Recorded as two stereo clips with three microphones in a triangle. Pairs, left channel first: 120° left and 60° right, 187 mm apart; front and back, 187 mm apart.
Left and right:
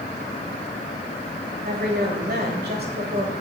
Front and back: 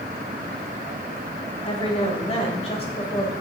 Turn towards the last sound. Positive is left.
turn(degrees=-55)